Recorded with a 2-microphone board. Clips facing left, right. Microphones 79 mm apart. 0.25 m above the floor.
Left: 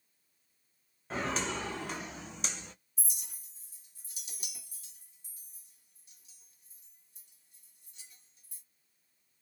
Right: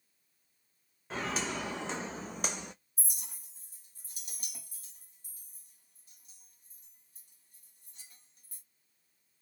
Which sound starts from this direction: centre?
Footsteps, at 1.1 s.